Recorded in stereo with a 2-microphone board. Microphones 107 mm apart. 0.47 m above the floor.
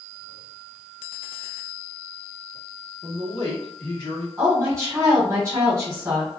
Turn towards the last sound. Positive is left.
turn(degrees=-30)  # may be behind; listen again after turning